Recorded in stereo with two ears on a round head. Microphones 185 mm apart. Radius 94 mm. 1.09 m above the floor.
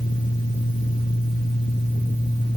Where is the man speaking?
No man speaking in this recording.